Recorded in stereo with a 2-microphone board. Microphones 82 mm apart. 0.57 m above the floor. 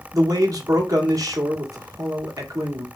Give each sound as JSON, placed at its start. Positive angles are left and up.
{"t": 0.1, "sound": "a man speaking", "side_deg": -45, "distance_m": 1.0}